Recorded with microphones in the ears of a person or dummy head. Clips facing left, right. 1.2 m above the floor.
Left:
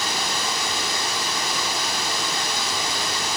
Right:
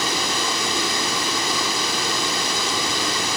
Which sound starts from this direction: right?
Running water, at 0.0 s.